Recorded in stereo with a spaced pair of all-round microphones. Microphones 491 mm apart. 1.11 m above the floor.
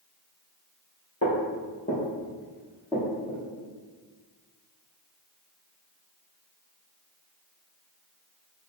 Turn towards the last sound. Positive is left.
turn(degrees=-5)  # may be behind; listen again after turning